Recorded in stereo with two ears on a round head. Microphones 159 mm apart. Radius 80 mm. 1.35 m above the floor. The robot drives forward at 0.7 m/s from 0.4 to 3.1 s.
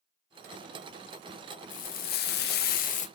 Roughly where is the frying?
Left.